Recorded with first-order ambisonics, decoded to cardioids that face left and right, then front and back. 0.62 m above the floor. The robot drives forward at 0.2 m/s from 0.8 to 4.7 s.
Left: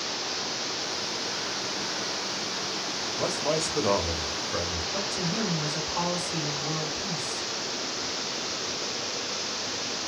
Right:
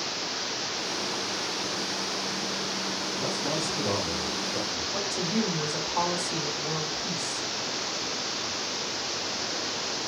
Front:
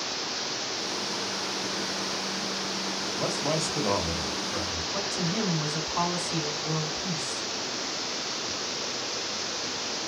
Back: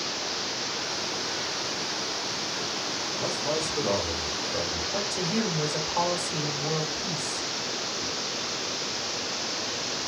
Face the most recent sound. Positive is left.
turn(degrees=-160)